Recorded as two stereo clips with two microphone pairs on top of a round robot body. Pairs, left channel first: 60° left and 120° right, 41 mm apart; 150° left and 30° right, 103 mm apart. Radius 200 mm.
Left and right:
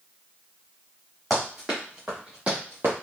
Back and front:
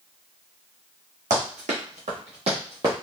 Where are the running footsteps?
30° right, 1.5 m; by 2.9 s 90° right, 0.6 m.